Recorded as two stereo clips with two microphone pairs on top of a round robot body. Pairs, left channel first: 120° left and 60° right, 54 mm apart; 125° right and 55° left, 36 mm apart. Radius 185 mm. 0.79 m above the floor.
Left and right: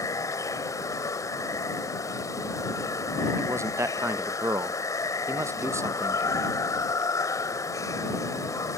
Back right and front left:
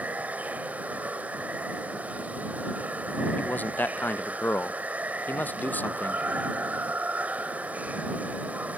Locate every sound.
0.0 s running water: 110° left
3.4 s a man speaking: 90° right